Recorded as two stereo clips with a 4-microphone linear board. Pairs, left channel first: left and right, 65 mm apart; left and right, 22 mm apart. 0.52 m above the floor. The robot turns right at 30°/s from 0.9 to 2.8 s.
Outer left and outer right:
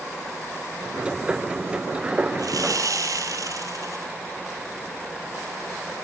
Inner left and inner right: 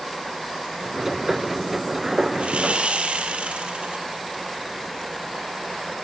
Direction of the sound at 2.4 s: 75° right (ahead or behind).